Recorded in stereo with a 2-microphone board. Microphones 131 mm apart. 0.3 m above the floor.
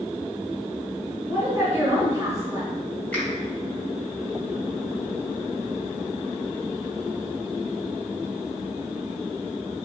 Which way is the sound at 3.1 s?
10° left (ahead or behind).